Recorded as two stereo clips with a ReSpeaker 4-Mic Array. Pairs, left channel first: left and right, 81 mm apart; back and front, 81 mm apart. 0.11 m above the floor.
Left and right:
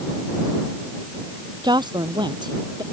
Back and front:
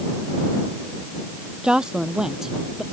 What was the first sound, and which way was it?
A woman speaking, 80° right.